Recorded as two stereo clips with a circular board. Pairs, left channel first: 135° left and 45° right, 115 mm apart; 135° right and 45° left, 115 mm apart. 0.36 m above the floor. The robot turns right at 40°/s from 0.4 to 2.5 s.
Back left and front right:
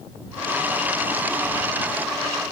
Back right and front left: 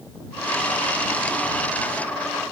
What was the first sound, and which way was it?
Only background noise.